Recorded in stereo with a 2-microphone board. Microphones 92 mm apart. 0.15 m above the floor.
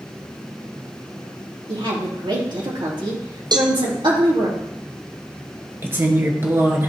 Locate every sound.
1.7 s a woman speaking: 65° right (ahead or behind), 3.5 m
3.5 s a cowbell: 55° right (ahead or behind), 1.1 m
5.8 s a woman speaking: 25° right (ahead or behind), 2 m